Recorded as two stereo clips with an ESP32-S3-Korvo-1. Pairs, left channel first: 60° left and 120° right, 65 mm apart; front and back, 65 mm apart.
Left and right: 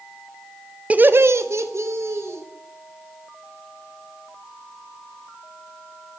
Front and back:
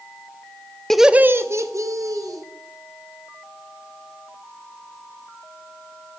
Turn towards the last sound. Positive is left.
turn(degrees=-160)